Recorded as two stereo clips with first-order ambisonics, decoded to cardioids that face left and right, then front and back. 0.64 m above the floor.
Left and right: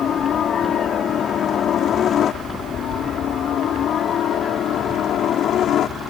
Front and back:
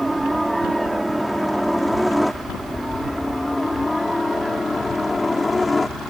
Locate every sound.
0.0 s a helicopter: 95° left; by 6.1 s 70° left